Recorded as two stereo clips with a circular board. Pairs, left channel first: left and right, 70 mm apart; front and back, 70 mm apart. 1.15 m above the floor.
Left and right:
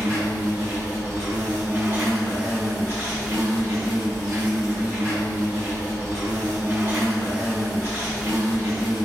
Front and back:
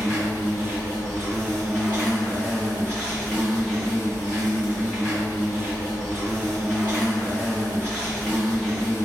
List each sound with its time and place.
0.0 s an insect: 60° right, 1.9 m